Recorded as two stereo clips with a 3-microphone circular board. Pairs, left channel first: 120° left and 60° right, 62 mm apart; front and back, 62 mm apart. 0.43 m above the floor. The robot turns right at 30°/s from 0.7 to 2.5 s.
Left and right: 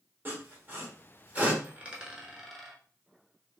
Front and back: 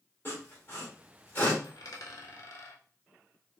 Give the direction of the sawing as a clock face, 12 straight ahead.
1 o'clock.